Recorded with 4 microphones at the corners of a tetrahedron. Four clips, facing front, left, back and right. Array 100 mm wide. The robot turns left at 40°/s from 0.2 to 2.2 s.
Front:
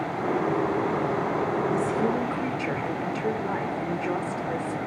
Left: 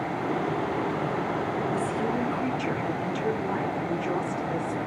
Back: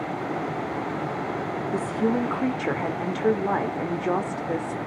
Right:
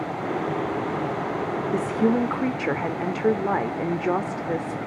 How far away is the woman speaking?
About 2.5 m.